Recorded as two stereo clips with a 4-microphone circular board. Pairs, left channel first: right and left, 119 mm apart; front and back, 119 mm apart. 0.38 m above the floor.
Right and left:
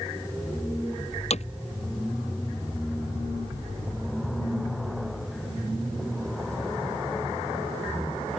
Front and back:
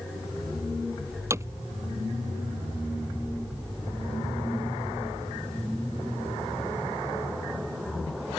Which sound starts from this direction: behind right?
Hammering, at 1.3 s.